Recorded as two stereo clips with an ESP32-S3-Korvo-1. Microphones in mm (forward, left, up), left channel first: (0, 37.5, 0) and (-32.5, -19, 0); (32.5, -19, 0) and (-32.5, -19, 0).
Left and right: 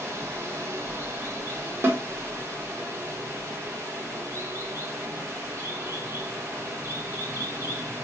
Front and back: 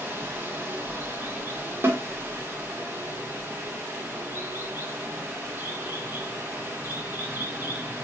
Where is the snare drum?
150° right, 1.1 m.